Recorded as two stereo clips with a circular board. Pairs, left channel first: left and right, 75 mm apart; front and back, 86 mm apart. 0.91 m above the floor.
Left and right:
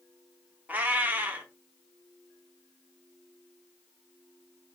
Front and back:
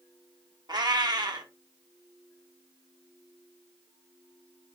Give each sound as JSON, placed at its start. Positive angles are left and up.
{"t": 0.7, "sound": "a cat meowing", "azimuth_deg": -155, "distance_m": 0.7}